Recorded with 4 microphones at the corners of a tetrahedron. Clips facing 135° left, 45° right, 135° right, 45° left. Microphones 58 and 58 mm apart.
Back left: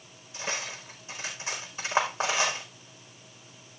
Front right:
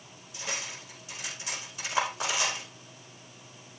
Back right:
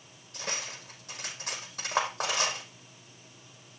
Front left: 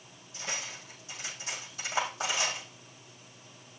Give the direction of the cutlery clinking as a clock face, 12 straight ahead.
6 o'clock.